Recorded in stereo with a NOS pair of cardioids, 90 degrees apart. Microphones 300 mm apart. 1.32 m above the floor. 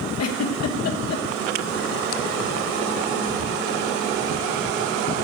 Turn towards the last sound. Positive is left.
turn(degrees=55)